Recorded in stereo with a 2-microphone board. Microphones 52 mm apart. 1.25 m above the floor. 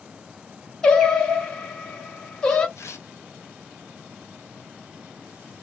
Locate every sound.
0.8 s singing: 15° left (ahead or behind), 0.9 m
2.8 s tearing paper: 65° left (ahead or behind), 0.8 m